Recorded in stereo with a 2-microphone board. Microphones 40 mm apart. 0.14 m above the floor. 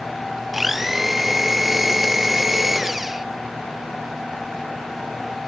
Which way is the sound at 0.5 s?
5° right (ahead or behind).